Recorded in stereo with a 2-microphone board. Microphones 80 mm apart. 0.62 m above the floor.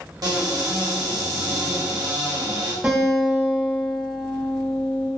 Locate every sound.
0.2 s a cupboard door: 55° right (ahead or behind), 0.8 m
2.8 s a guitar: 20° right (ahead or behind), 1.3 m